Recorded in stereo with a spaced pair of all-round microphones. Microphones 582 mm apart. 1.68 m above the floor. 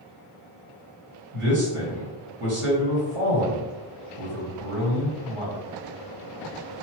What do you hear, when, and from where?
1.3 s a man speaking: 60° right (ahead or behind), 1.8 m